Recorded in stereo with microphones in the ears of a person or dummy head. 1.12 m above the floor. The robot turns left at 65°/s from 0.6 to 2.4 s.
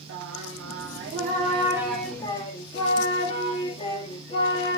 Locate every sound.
0.1 s singing: 100° right, 1.2 m; by 4.8 s 145° left, 1.2 m